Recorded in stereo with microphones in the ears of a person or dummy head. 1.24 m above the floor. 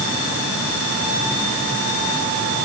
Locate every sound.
Only background noise.